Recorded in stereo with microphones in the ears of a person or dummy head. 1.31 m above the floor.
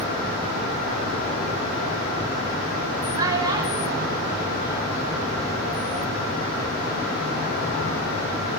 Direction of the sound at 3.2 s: 25° right (ahead or behind).